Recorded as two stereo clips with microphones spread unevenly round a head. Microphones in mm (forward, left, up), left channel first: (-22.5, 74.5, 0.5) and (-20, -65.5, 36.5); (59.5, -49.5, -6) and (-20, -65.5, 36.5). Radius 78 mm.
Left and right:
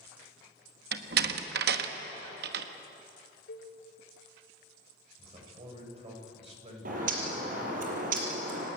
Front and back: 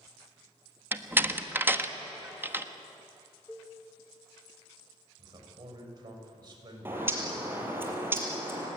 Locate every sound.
0.9 s a door slam: 100° right, 1.5 m
3.5 s a cowbell: 100° left, 3.5 m
5.2 s a man speaking: 135° right, 7 m
6.8 s a bird: 115° right, 5 m